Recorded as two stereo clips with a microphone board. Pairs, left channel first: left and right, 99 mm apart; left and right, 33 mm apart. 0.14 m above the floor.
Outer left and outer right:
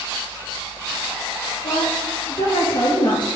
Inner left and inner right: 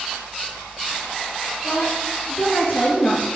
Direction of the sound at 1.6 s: 60° left (ahead or behind).